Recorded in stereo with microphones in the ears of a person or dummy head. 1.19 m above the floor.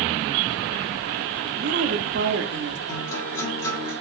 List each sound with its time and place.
1.6 s a woman speaking: 50° right (ahead or behind), 0.7 m
2.9 s a guitar: 15° left (ahead or behind), 2.5 m